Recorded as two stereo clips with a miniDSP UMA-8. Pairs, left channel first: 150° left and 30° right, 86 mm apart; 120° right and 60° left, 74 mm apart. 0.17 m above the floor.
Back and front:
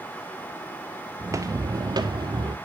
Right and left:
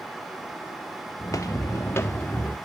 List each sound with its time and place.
1.2 s footsteps: 85° right, 0.7 m; by 2.5 s 55° right, 1.2 m